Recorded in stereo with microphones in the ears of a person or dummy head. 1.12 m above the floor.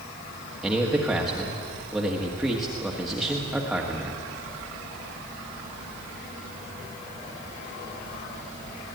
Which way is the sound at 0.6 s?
Centre (ahead or behind).